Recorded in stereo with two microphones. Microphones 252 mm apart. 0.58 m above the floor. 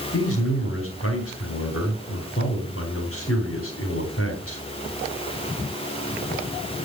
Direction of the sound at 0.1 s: 60° left (ahead or behind).